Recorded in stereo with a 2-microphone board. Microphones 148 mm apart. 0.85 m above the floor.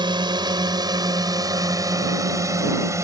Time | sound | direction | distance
0.0 | a drone | 30° right (ahead or behind) | ?